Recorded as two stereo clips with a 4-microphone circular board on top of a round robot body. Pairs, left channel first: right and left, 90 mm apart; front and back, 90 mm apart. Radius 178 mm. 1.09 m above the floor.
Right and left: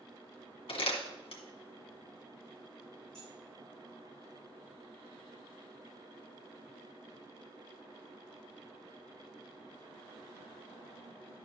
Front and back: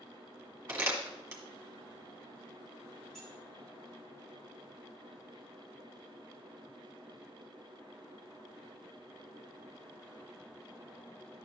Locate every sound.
0.7 s crumpling: 115° right, 1.8 m
3.1 s keys jangling: 85° left, 5 m